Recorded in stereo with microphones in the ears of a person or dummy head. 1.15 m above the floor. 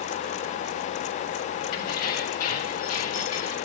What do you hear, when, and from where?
1.7 s keys jangling: 55° left (ahead or behind), 3 m; by 3.6 s 45° left (ahead or behind), 2.0 m